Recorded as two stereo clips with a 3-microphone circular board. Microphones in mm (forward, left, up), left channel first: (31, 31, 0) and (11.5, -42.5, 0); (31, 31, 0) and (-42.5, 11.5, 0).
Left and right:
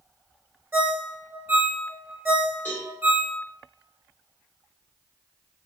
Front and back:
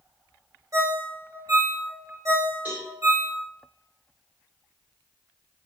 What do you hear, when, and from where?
0.7 s a ringtone: 155° right, 0.7 m
2.6 s a cowbell: 130° left, 1.8 m